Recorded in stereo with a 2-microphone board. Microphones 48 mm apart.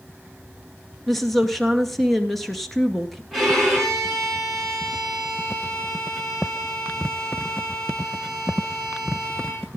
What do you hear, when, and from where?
1.1 s a woman speaking: centre (ahead or behind), 2 m
3.3 s a violin: centre (ahead or behind), 9.5 m